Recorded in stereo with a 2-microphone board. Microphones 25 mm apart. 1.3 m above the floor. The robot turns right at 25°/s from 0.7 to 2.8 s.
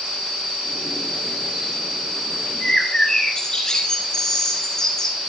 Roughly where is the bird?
Left.